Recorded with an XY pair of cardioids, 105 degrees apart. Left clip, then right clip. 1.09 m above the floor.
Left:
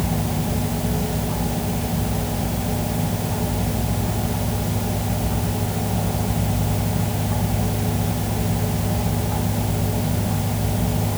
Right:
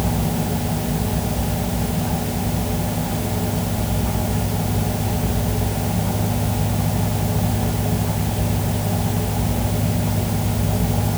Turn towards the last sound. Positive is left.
No sound to turn to.